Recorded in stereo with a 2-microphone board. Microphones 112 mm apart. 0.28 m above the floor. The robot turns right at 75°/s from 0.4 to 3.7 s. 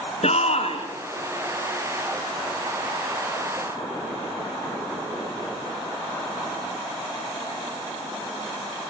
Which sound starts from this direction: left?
A shout, at 0.2 s.